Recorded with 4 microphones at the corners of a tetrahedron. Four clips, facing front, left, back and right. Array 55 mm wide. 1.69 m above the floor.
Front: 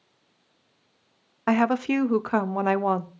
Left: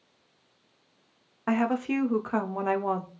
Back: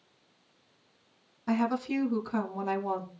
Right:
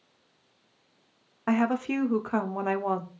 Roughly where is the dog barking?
No dog barking in this recording.